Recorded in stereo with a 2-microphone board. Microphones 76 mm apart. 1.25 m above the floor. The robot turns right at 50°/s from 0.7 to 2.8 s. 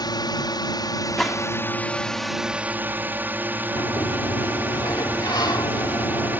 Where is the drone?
100° left; by 6.4 s 155° right.